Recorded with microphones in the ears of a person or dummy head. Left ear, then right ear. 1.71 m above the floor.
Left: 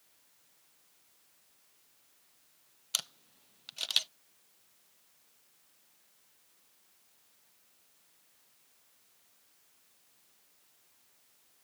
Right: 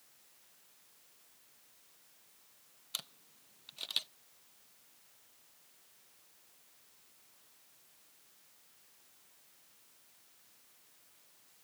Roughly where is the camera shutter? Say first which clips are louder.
Left 8 dB; left.